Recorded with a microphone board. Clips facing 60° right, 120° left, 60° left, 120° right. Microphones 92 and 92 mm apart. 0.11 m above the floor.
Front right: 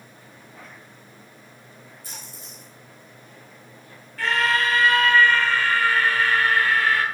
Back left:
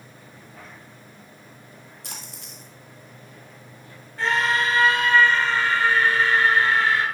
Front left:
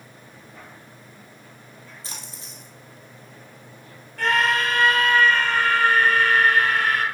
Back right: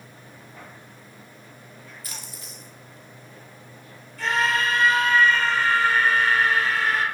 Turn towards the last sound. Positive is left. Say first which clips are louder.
# even, front left 2 dB
turn(degrees=60)